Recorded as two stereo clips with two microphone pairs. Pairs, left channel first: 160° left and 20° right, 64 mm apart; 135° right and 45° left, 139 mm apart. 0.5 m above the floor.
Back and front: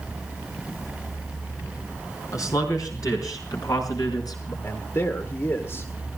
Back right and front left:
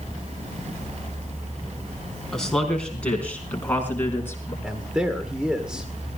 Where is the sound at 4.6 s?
125° left, 1.8 m.